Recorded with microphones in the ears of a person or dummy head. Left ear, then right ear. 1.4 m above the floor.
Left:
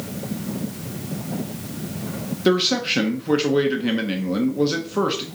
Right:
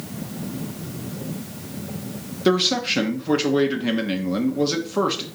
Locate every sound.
2.5 s a man speaking: centre (ahead or behind), 0.6 m